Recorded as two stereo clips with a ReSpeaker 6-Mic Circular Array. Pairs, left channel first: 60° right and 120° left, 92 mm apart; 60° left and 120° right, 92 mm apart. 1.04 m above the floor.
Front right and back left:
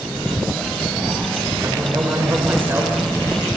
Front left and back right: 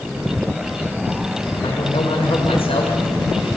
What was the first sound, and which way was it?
A man speaking, 65° left.